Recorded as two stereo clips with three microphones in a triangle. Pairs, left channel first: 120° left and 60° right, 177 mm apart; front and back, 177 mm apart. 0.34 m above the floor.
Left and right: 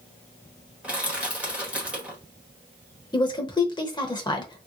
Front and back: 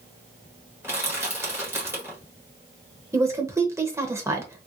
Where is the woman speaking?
130° left, 0.9 m.